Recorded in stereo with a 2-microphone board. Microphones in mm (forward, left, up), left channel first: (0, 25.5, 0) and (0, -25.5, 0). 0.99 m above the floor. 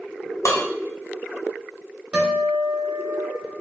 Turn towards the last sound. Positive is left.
turn(degrees=-30)  # may be behind; listen again after turning